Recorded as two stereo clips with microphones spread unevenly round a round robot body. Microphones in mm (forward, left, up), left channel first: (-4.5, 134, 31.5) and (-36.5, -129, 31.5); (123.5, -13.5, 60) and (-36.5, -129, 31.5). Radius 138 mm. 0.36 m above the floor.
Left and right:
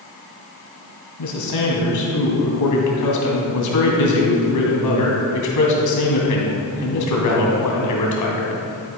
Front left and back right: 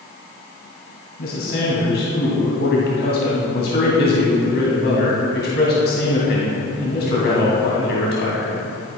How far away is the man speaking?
About 2.5 m.